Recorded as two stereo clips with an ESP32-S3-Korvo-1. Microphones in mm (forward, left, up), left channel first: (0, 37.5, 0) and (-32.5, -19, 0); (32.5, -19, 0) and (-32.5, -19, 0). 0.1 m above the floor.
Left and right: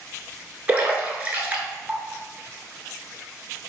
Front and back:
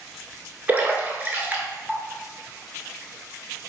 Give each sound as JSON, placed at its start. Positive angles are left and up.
{"t": 0.7, "sound": "a splash", "azimuth_deg": -155, "distance_m": 0.6}